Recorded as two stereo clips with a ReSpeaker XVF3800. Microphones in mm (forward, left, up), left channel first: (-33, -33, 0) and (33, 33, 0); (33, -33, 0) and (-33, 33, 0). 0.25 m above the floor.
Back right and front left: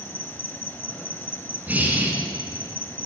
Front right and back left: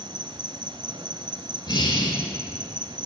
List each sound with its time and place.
0.0 s an insect: 160° left, 0.7 m
1.7 s breathing: 25° right, 1.2 m